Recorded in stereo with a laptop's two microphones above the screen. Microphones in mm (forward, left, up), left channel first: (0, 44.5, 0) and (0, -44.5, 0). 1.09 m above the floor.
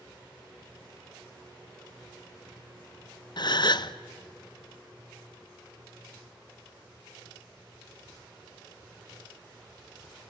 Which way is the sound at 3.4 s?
55° left (ahead or behind).